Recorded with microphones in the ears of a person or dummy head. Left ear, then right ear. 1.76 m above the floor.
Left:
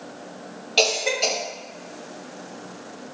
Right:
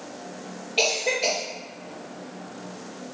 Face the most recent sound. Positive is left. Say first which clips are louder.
# left 3 dB
turn(degrees=55)  # may be behind; listen again after turning